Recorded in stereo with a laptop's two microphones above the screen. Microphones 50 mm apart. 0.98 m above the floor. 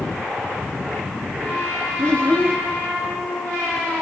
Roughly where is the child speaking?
Left.